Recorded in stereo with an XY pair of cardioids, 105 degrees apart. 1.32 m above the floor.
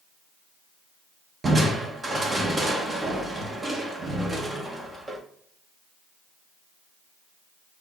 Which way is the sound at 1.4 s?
25° right.